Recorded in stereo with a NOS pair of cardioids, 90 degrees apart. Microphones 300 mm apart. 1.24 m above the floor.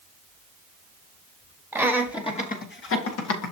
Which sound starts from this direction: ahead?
Laughter, at 1.7 s.